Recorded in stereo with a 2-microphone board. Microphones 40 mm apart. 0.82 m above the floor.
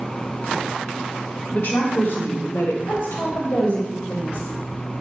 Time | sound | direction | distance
1.5 | a woman speaking | 50° left (ahead or behind) | 1.6 m
2.9 | a woman speaking | 60° left (ahead or behind) | 3 m